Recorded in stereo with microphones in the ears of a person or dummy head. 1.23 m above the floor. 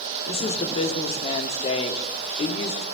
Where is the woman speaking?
35° left (ahead or behind), 2.5 m.